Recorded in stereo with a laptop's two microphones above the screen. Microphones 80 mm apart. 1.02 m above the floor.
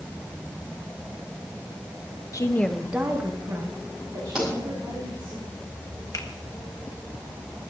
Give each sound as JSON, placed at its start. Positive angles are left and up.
{"t": 2.3, "sound": "a woman speaking", "side_deg": 45, "distance_m": 0.9}
{"t": 4.3, "sound": "a pop", "side_deg": -10, "distance_m": 7.0}
{"t": 6.1, "sound": "a finger snap", "side_deg": 45, "distance_m": 1.2}